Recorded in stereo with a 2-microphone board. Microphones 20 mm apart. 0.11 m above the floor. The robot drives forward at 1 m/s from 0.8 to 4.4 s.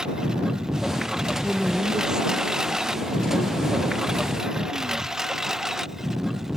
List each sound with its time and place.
0.0 s a lawn mower: 45° right (ahead or behind); by 6.6 s 25° right (ahead or behind)
1.4 s a woman speaking: 35° right (ahead or behind); by 5.4 s 20° right (ahead or behind)